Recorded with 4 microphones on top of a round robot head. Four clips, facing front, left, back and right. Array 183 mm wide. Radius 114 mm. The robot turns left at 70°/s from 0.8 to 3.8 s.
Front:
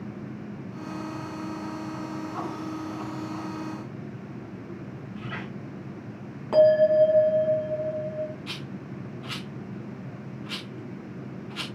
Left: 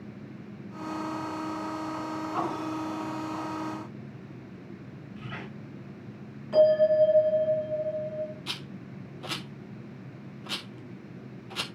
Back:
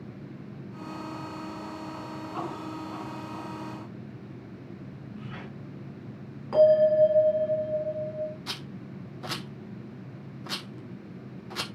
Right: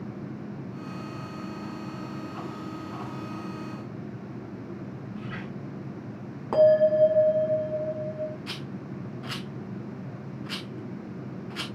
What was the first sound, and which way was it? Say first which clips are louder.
A squeak: right 2 dB, front 5 dB; 15° left.